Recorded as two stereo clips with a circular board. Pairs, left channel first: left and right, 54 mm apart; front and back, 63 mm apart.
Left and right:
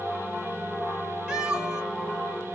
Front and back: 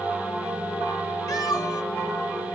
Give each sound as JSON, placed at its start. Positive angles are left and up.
{"t": 1.3, "sound": "a cat meowing", "azimuth_deg": -10, "distance_m": 1.6}